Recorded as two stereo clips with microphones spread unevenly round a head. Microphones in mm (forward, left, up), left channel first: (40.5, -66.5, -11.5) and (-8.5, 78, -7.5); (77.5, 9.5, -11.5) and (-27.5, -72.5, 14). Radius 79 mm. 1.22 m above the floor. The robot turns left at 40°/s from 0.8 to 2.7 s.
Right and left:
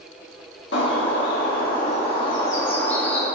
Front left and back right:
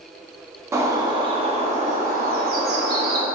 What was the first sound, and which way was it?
A bird, 75° right.